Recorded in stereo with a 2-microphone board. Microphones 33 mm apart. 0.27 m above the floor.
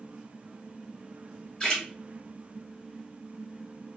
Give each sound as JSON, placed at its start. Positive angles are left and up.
{"t": 1.6, "sound": "a splash", "side_deg": 25, "distance_m": 1.5}